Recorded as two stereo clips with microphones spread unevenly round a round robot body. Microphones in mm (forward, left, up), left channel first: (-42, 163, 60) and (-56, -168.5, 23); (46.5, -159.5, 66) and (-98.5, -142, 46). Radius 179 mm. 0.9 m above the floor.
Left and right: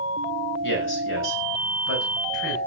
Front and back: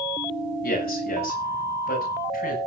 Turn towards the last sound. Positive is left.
turn(degrees=35)